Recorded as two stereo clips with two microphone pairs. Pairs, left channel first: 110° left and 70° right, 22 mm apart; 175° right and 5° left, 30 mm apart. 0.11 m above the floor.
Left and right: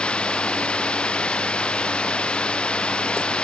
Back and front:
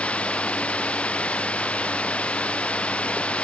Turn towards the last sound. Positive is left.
turn(degrees=135)